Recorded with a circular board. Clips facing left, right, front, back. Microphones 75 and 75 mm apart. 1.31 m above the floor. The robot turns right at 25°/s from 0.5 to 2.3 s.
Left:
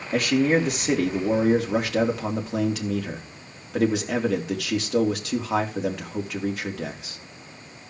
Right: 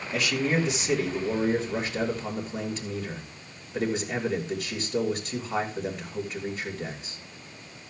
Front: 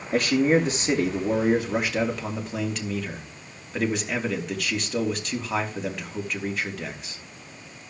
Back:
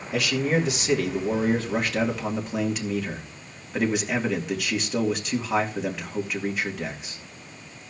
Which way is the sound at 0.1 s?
50° left.